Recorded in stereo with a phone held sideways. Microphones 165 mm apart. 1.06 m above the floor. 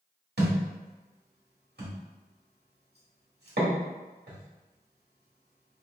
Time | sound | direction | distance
0.4 | a thud | 80° right | 1.4 m